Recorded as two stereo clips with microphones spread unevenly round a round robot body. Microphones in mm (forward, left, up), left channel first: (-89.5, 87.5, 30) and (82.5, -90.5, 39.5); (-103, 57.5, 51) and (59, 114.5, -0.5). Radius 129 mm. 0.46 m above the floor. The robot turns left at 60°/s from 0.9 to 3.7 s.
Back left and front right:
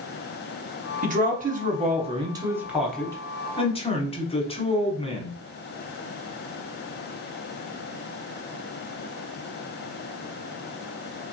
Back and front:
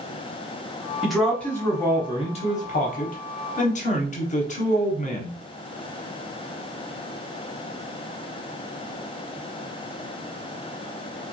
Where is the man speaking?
30° right, 1.3 m; by 5.4 s 170° left, 1.3 m.